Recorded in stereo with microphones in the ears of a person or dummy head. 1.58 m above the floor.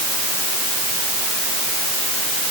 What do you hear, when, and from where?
Only background noise.